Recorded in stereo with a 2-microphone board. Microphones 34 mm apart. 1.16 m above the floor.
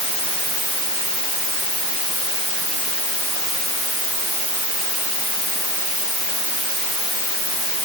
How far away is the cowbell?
No cowbell in this recording.